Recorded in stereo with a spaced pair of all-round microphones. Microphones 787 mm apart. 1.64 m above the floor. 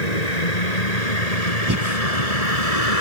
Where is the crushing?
I don't hear crushing.